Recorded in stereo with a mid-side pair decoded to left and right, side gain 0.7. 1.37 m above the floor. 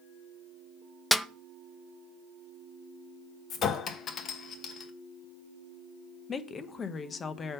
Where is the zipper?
I don't hear a zipper.